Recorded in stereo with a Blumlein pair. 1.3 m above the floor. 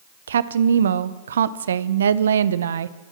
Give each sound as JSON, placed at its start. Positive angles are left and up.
{"t": 0.3, "sound": "a woman speaking", "azimuth_deg": -65, "distance_m": 0.6}